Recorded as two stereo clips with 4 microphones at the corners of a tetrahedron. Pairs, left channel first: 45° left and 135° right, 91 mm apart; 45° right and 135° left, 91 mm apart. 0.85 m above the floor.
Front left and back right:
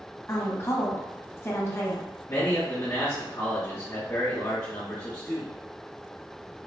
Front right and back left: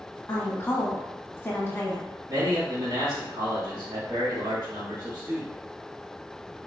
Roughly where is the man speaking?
Left.